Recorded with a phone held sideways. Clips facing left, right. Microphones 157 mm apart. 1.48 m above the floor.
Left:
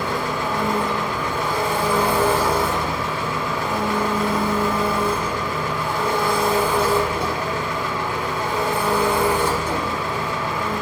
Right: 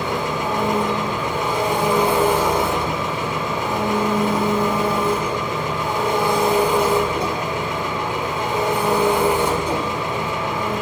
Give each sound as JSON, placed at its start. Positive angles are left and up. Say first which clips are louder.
{"t": 0.0, "sound": "an engine running", "louder": "right 1 dB", "side_deg": -20, "distance_m": 1.7}